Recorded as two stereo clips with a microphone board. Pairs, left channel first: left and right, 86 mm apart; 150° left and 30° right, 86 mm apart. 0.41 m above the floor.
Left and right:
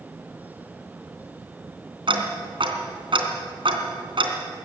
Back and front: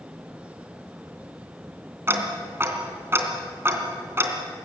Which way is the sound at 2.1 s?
90° right.